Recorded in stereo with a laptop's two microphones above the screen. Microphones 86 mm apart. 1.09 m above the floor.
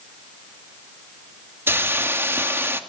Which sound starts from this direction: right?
A hiss, at 1.7 s.